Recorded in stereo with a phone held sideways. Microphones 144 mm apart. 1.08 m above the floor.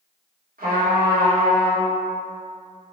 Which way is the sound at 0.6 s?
75° right (ahead or behind).